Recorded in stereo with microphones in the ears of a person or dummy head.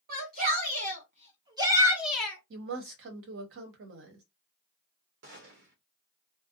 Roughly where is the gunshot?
Right.